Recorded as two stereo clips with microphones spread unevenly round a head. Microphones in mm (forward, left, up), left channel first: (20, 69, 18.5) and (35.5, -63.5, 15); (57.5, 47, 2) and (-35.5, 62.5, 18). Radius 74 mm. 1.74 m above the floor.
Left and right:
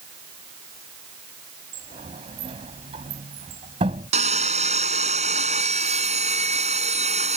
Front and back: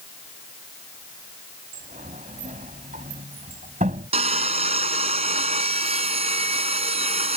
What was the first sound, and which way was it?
A sliding door, 145° right.